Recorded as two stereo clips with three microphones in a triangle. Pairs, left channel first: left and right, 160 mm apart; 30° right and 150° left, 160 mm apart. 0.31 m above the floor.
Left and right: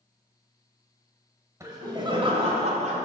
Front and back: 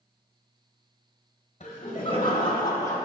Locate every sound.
1.6 s laughter: 25° right, 1.1 m; by 3.0 s 95° right, 1.3 m